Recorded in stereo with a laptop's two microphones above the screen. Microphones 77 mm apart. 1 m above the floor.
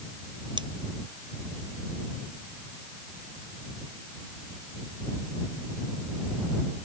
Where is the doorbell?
I don't hear a doorbell.